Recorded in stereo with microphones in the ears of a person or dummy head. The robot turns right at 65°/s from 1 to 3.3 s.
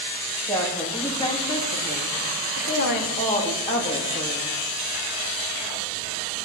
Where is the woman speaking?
10° left, 3.5 m; by 4.5 s 160° left, 3.5 m.